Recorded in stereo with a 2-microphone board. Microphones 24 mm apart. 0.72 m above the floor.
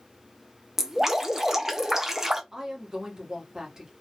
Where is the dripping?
20° right (ahead or behind), 0.6 m.